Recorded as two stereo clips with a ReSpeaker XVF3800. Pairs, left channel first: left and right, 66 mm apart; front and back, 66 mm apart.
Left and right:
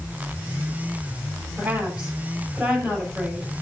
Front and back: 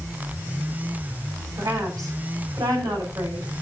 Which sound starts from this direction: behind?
A woman speaking, at 1.6 s.